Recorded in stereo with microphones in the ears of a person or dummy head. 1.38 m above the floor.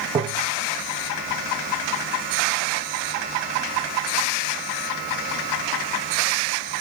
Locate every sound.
0.1 s tapping: 15° right (ahead or behind), 0.5 m